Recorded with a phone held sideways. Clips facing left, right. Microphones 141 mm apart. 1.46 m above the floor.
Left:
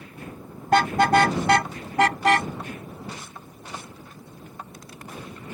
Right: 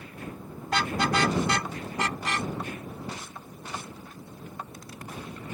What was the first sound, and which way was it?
A car horn, 55° left (ahead or behind).